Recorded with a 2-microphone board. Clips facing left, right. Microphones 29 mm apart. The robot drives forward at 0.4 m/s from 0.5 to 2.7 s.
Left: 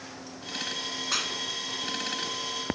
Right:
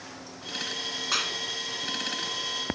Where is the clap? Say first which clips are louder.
Right 2 dB; 10° right (ahead or behind).